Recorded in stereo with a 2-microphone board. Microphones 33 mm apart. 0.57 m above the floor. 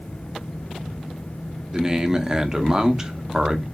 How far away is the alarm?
No alarm in this recording.